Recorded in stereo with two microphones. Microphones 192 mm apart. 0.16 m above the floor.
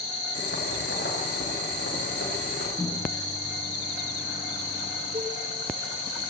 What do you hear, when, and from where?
0.3 s boiling: 75° left (ahead or behind), 7.5 m
2.8 s a microwave: 20° left (ahead or behind), 1.3 m
5.1 s a cowbell: 30° right (ahead or behind), 1.6 m